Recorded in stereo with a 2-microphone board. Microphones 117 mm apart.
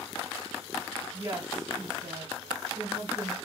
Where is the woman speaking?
45° right (ahead or behind), 3 m.